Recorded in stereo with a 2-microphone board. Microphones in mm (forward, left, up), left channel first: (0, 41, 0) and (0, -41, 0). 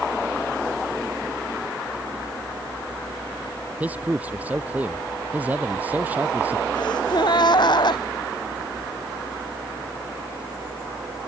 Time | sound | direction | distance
3.8 | a man speaking | 20° right (ahead or behind) | ?
6.8 | a gasp | 65° left (ahead or behind) | ?